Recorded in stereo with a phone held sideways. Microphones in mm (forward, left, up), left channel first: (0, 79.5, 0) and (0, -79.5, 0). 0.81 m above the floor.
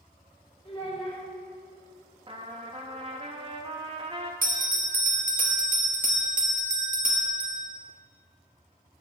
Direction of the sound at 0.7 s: 35° left (ahead or behind).